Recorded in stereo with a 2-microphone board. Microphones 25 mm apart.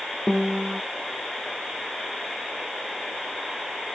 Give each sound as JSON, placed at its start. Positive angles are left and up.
{"t": 0.3, "sound": "a piano", "side_deg": -35}